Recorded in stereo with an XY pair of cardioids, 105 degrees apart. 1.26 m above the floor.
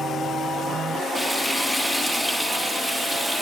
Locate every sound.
1.1 s frying: 5° right, 3 m